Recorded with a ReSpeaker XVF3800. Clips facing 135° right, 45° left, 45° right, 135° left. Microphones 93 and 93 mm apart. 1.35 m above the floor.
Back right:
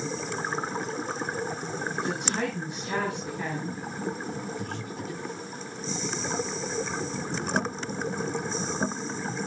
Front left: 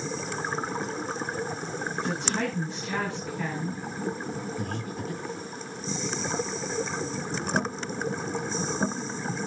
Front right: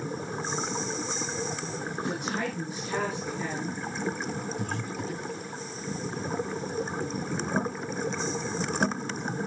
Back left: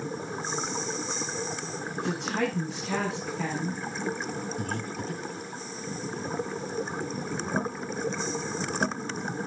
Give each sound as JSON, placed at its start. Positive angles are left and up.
{"t": 2.0, "sound": "a woman speaking", "azimuth_deg": 150, "distance_m": 8.0}
{"t": 4.6, "sound": "breathing", "azimuth_deg": 95, "distance_m": 1.7}